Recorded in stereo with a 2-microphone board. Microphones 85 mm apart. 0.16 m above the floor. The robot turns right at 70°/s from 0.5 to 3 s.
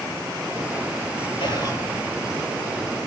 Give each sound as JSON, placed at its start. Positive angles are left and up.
{"t": 1.4, "sound": "whispering", "side_deg": 60, "distance_m": 4.5}